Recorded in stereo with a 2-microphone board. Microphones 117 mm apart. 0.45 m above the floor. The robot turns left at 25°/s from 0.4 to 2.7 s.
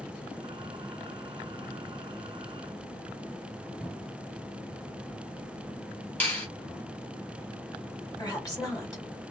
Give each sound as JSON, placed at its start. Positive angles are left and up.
{"t": 3.8, "sound": "a cupboard door", "side_deg": 5, "distance_m": 0.7}
{"t": 6.2, "sound": "a finger snap", "side_deg": 15, "distance_m": 1.5}
{"t": 8.2, "sound": "a woman speaking", "side_deg": 30, "distance_m": 1.9}